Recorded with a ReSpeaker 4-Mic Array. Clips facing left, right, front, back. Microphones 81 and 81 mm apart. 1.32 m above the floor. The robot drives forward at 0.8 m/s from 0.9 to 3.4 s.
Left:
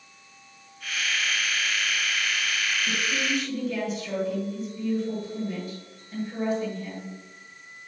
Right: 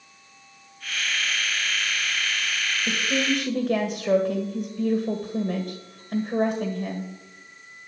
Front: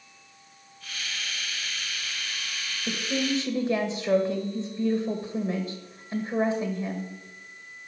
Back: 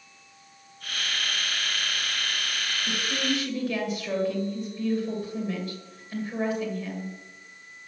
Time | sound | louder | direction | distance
2.9 | a woman speaking | right 7 dB, front 2 dB | 45° right | 1.7 m